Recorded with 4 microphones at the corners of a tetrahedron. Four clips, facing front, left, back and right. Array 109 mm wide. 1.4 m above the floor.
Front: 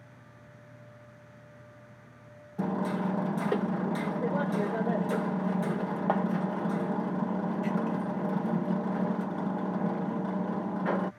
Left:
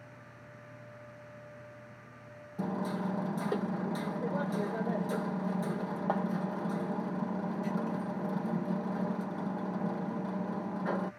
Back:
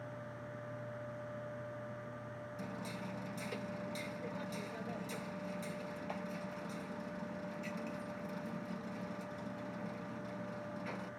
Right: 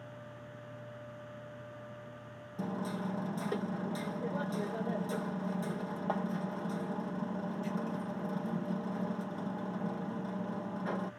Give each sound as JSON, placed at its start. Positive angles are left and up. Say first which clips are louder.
{"t": 2.6, "sound": "hammering", "louder": "left 3 dB, front 17 dB", "azimuth_deg": 10}